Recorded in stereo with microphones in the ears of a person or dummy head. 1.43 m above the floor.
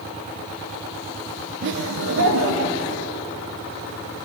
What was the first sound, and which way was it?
Laughter, 60° right (ahead or behind).